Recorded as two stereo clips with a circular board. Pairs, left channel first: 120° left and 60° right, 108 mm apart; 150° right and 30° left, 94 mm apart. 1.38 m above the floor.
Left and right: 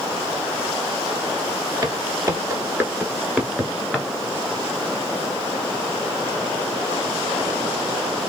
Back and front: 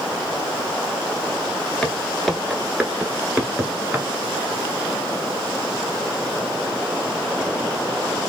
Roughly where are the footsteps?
Right.